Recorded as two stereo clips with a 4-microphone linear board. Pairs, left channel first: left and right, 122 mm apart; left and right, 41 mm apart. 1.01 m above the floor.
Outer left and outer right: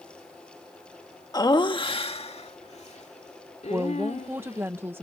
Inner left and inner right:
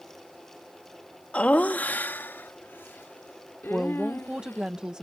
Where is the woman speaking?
20° right (ahead or behind).